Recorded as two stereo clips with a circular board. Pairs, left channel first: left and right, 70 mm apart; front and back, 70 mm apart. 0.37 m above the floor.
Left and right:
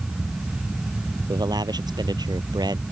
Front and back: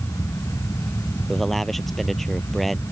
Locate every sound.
1.3 s a man speaking: 90° right